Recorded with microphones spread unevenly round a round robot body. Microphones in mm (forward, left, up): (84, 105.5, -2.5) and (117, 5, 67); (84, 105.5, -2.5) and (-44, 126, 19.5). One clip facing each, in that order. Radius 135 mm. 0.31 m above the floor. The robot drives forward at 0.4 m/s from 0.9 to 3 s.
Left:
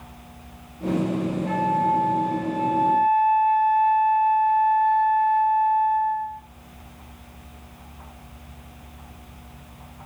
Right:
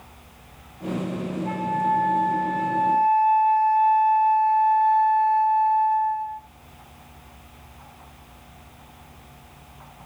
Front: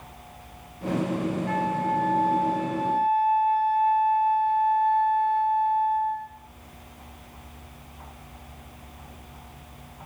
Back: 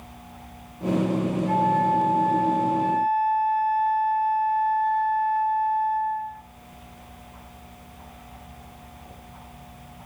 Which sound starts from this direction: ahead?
A flute, at 1.4 s.